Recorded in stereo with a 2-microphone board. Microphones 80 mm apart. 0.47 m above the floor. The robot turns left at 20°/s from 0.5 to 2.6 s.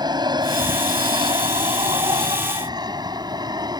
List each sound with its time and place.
0.0 s an aircraft: 55° right (ahead or behind)